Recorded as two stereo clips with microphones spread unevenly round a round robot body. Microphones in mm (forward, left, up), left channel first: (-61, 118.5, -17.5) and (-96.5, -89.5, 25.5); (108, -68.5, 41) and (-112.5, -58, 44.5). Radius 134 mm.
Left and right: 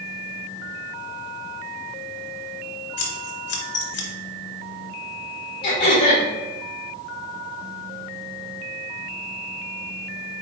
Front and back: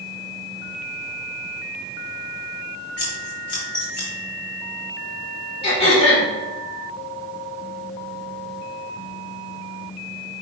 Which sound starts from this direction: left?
Scissors, at 3.0 s.